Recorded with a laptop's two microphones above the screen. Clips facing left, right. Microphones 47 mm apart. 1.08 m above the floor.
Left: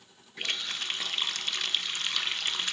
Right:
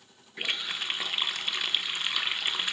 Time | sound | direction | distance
0.4 | a running tap | 15° right (ahead or behind) | 0.5 m